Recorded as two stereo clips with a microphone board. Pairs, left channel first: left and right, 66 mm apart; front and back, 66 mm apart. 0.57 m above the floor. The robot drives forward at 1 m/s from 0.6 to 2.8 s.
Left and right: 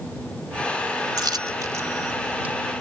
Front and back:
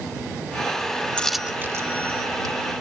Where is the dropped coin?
70° right; by 2.5 s 155° right.